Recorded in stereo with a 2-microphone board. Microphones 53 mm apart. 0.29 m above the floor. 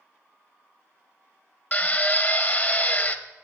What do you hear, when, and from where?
1.7 s a drill: 30° left (ahead or behind), 0.5 m